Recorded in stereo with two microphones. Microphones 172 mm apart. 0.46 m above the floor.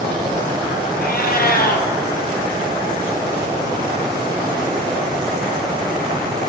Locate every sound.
1.0 s a cat meowing: 65° left (ahead or behind), 1.5 m